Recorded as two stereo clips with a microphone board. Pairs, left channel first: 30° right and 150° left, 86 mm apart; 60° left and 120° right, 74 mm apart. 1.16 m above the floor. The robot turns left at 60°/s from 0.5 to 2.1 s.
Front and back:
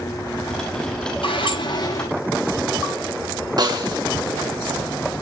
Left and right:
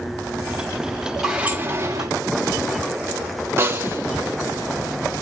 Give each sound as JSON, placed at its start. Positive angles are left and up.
{"t": 1.2, "sound": "a sliding door", "azimuth_deg": -35, "distance_m": 7.0}
{"t": 3.6, "sound": "a snare drum", "azimuth_deg": -175, "distance_m": 3.0}